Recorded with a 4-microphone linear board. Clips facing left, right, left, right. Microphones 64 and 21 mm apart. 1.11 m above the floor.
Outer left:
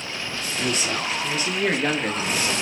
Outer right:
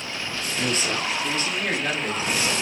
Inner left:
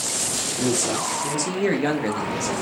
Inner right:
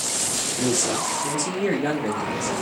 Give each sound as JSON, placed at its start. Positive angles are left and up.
{"t": 0.6, "sound": "a man speaking", "side_deg": -35, "distance_m": 0.8}